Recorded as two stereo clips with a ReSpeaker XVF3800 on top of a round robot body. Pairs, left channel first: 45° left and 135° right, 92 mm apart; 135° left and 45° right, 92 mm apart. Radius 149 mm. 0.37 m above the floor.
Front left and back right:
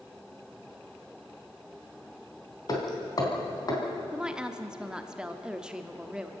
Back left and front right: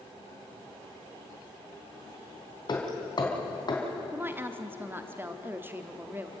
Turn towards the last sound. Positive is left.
turn(degrees=-65)